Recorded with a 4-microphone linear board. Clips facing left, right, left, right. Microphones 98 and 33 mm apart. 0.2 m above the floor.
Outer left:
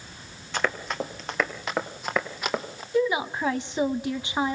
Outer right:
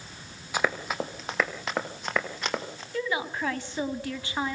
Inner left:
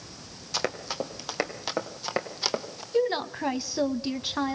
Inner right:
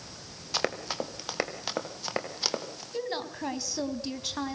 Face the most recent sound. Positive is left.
turn(degrees=20)  # may be behind; listen again after turning